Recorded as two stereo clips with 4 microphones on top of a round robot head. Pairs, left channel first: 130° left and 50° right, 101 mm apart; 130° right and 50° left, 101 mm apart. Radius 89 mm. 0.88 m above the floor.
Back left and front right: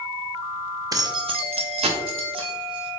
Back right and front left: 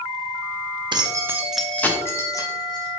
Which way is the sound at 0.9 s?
5° left.